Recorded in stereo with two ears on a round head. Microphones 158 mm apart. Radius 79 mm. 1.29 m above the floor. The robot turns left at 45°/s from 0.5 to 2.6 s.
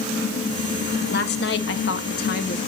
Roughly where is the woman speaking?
Behind left.